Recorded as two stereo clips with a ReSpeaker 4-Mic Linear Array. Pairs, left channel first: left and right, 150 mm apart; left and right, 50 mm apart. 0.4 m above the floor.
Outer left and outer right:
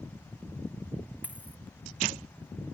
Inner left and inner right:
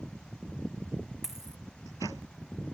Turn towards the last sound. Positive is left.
turn(degrees=-10)  # may be behind; listen again after turning